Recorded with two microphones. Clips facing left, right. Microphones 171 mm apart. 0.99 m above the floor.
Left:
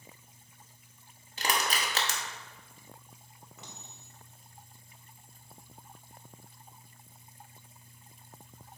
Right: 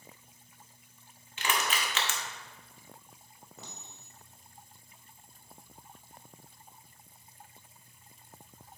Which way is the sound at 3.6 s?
40° right (ahead or behind).